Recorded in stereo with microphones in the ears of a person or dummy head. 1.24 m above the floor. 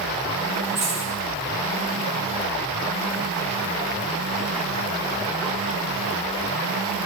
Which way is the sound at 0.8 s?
5° right (ahead or behind).